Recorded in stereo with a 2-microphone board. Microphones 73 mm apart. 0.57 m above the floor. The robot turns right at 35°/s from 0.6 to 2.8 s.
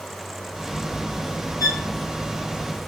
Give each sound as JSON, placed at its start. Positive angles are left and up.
{"t": 1.6, "sound": "a violin", "side_deg": 50, "distance_m": 0.8}